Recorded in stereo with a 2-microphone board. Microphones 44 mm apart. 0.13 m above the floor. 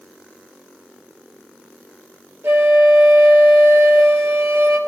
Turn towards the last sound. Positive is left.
turn(degrees=-60)  # may be behind; listen again after turning